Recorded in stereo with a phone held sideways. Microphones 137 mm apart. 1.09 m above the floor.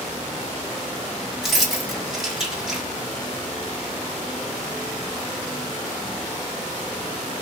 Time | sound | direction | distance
1.4 | keys jangling | centre (ahead or behind) | 1.3 m